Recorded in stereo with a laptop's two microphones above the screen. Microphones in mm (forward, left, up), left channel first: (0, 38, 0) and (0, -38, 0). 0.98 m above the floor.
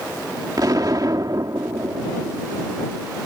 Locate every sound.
0.6 s an explosion: 55° right (ahead or behind)